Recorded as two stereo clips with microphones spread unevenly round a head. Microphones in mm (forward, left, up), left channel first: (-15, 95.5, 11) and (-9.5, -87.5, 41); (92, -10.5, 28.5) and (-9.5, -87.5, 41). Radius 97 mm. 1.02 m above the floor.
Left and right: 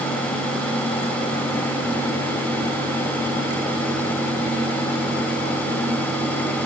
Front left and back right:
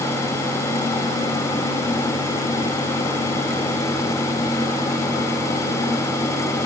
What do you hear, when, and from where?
Only background noise.